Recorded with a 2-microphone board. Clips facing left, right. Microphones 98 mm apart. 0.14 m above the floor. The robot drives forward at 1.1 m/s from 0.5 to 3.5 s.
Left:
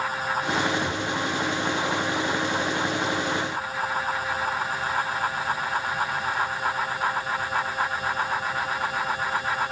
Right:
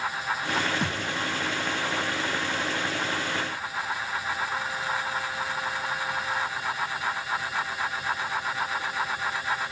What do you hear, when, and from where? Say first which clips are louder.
0.8 s a thud: left 2 dB; 80° right, 2 m; by 1.1 s 75° right (ahead or behind), 2 m